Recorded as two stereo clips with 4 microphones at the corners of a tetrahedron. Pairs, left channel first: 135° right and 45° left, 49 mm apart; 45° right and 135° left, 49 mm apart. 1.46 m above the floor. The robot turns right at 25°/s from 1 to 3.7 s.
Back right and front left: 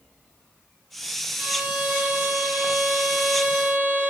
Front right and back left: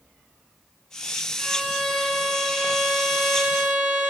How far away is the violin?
About 0.8 m.